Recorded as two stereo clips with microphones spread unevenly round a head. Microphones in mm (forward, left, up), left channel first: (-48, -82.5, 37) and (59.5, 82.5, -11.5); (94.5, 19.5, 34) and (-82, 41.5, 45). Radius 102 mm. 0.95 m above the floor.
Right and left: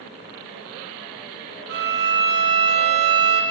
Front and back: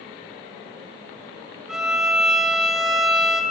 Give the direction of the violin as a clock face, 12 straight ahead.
9 o'clock.